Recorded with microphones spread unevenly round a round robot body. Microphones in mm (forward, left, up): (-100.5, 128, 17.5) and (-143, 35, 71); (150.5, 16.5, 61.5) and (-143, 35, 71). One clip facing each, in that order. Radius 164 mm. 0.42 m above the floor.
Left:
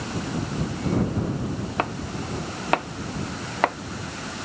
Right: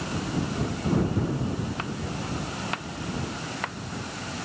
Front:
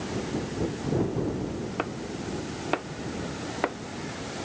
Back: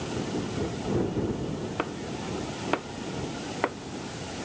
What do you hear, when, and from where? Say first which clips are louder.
1.8 s chopping: left 4 dB, even; 90° left